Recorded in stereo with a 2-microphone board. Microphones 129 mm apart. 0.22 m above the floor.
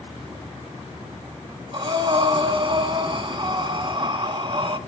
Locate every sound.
1.7 s breathing: 45° right (ahead or behind), 0.7 m